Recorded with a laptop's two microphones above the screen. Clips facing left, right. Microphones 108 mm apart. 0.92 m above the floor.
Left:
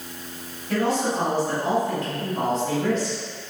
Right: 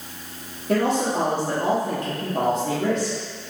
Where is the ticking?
I don't hear ticking.